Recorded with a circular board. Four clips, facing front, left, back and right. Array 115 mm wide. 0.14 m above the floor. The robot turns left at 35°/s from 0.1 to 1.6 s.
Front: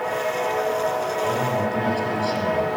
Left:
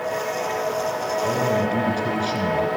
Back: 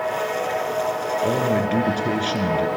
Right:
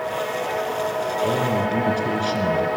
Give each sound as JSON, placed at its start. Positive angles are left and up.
{"t": 1.2, "sound": "a man speaking", "azimuth_deg": -160, "distance_m": 2.5}